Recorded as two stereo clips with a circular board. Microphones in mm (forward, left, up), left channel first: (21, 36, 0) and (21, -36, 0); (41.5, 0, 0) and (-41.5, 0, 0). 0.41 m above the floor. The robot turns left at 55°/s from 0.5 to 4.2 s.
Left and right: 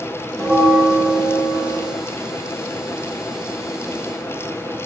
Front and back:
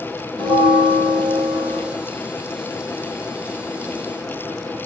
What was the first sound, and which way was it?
A bell, straight behind.